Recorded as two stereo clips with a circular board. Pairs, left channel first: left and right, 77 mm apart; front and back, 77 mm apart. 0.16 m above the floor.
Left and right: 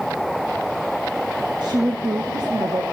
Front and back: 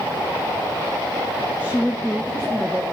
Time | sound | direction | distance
1.6 | a woman speaking | 110° right | 7 m